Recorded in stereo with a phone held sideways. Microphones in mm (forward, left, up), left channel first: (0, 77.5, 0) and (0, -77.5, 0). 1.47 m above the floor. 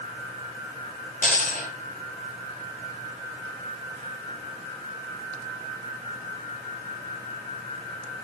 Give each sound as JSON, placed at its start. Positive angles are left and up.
{"t": 1.2, "sound": "a dropped coin", "side_deg": 60, "distance_m": 4.5}